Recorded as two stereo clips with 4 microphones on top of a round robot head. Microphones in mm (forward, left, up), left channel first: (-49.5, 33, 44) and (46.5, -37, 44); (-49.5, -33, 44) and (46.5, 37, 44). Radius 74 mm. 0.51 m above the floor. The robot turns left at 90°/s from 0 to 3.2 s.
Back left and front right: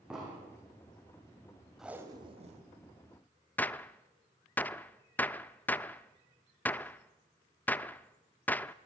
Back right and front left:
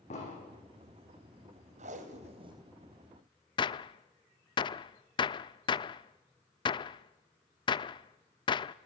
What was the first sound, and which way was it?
An explosion, 115° right.